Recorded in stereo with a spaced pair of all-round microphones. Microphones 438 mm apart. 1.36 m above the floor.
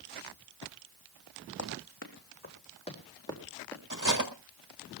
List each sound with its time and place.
1.6 s running footsteps: 35° left (ahead or behind), 3.5 m; by 3.8 s 5° left (ahead or behind), 4.5 m
3.9 s cutlery clinking: 40° right (ahead or behind), 1.9 m